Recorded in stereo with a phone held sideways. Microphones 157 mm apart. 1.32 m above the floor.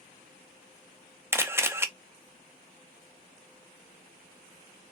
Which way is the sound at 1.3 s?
15° right (ahead or behind).